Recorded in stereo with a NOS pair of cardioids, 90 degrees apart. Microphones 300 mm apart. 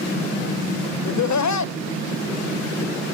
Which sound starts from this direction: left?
Laughter, at 1.1 s.